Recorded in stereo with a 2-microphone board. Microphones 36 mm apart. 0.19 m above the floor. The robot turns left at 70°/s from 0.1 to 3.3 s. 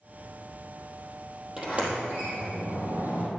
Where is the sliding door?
20° right (ahead or behind), 3.5 m; by 3.3 s 40° right (ahead or behind), 3.5 m.